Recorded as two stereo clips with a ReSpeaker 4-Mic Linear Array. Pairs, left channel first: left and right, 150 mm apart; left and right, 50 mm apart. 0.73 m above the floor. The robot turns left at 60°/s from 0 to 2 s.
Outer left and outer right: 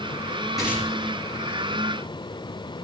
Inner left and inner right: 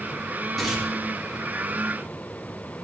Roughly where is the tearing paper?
Centre.